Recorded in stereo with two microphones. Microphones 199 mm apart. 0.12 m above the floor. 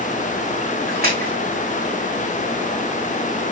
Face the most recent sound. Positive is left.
turn(degrees=-50)  # may be behind; listen again after turning